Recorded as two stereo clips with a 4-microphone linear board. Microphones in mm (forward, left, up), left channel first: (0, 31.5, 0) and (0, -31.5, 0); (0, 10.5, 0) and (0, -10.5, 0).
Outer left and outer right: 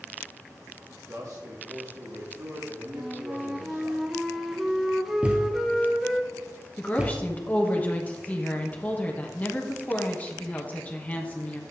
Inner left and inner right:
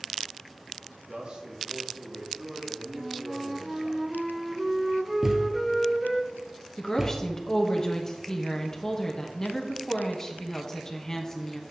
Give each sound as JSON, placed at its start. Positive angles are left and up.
{"t": 1.1, "sound": "a man speaking", "side_deg": -50, "distance_m": 1.5}
{"t": 2.9, "sound": "a flute", "side_deg": -5, "distance_m": 0.6}
{"t": 5.2, "sound": "a thud", "side_deg": -20, "distance_m": 1.4}
{"t": 6.8, "sound": "a woman speaking", "side_deg": 25, "distance_m": 1.1}